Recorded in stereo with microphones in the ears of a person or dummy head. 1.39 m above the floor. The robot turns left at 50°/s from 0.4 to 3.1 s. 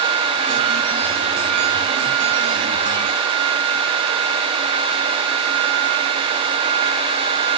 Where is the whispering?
No whispering in this recording.